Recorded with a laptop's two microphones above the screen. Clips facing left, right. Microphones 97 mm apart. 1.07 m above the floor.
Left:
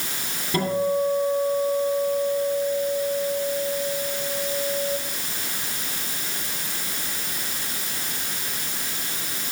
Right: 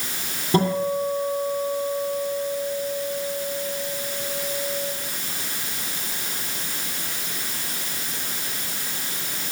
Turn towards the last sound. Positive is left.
turn(degrees=-30)  # may be behind; listen again after turning